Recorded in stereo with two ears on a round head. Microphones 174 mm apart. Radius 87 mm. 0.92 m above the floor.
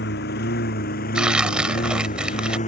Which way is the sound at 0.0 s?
55° left (ahead or behind).